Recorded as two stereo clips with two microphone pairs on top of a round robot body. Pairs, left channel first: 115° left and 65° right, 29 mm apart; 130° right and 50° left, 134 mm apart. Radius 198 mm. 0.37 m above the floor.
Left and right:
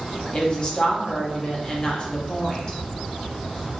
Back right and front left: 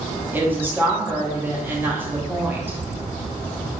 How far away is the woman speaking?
About 1.0 m.